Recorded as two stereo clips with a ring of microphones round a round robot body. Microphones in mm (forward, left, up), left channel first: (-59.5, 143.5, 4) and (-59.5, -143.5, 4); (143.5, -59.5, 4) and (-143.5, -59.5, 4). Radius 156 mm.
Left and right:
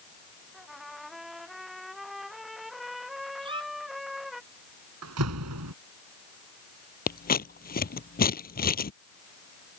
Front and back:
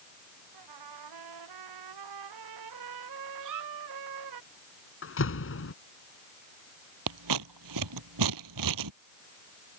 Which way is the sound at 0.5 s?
Straight behind.